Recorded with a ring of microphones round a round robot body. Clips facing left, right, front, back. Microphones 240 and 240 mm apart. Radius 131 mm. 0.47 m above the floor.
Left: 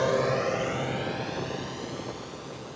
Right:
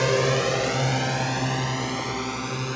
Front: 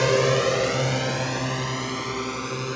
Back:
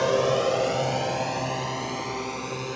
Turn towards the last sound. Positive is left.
turn(degrees=-70)